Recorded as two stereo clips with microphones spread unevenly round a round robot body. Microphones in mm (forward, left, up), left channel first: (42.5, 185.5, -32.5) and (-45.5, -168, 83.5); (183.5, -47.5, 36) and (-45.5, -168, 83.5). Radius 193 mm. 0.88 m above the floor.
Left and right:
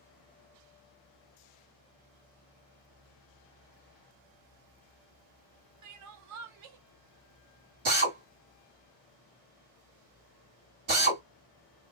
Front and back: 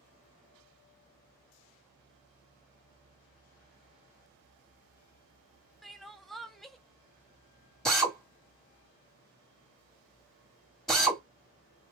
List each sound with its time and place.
5.8 s crying: 55° right, 0.6 m
7.8 s a drill: 55° right, 1.8 m